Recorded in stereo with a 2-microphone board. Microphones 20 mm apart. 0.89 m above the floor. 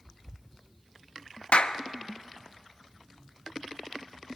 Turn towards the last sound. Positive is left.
turn(degrees=70)  # may be behind; listen again after turning